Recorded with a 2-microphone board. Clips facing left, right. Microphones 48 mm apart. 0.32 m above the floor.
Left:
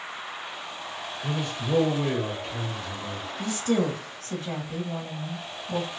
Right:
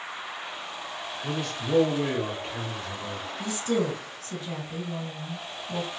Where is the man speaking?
25° left (ahead or behind), 1.0 m; by 3.3 s 40° right (ahead or behind), 1.3 m.